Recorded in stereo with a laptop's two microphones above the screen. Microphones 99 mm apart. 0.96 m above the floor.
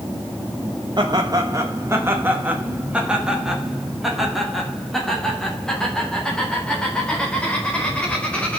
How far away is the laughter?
About 1.2 m.